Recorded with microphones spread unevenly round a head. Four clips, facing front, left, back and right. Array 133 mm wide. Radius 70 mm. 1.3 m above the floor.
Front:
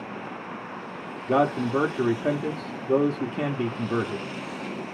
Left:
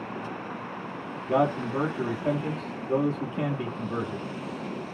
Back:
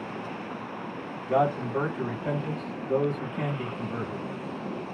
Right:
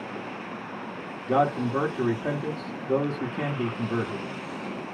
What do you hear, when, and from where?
1.3 s a man speaking: 20° right, 1.0 m